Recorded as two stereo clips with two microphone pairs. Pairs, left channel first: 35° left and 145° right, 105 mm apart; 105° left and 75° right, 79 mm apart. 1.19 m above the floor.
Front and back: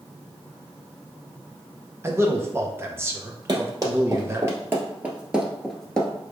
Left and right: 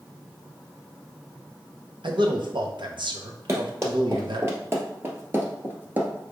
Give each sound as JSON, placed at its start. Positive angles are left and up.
{"t": 2.0, "sound": "a man speaking", "azimuth_deg": -80, "distance_m": 0.9}
{"t": 3.5, "sound": "running footsteps", "azimuth_deg": -115, "distance_m": 1.7}